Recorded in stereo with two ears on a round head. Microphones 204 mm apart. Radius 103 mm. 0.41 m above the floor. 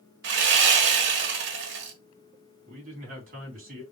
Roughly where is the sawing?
Right.